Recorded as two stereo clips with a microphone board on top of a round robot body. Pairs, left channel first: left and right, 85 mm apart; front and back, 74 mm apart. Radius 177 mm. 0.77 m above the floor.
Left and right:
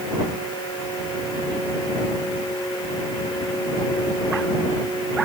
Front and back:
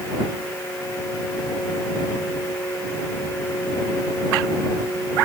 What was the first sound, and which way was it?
Only background noise.